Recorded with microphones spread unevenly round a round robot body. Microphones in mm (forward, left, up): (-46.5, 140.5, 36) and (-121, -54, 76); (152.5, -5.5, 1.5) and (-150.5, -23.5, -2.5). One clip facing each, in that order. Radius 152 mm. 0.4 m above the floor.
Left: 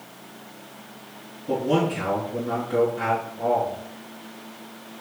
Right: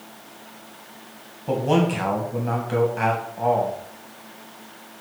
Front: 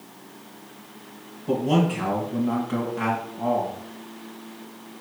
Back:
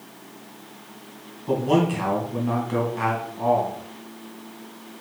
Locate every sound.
1.5 s a man speaking: 95° right, 3 m